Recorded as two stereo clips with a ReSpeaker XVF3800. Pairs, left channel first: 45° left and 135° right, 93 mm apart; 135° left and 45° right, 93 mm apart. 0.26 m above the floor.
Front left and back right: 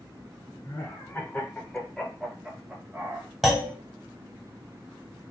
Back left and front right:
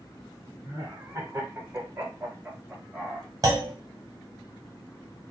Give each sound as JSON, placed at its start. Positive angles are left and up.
{"t": 0.6, "sound": "laughter", "azimuth_deg": 0, "distance_m": 1.6}
{"t": 3.4, "sound": "a clunk", "azimuth_deg": -50, "distance_m": 1.0}